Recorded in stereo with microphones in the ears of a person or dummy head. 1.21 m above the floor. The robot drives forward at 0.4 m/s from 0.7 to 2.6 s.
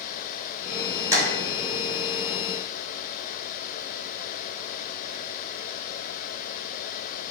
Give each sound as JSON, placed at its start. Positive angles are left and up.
{"t": 1.1, "sound": "tapping", "side_deg": -10, "distance_m": 1.7}